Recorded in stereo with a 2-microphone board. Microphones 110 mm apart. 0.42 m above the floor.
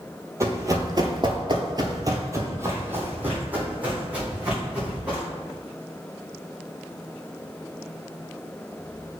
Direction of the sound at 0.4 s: 25° right (ahead or behind).